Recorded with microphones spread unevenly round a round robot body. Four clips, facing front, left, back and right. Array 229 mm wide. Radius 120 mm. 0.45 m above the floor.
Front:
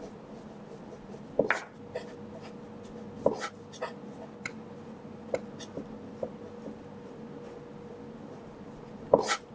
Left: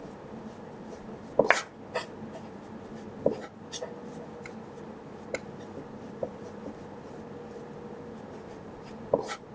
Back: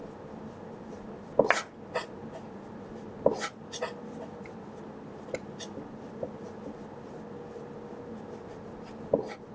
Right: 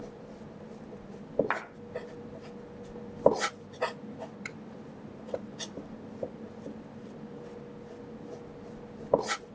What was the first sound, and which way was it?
A clap, 110° left.